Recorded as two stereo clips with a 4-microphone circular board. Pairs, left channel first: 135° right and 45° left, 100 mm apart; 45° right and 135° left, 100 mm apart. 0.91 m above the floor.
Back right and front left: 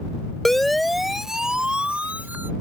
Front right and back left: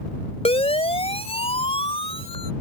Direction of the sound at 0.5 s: 45° right.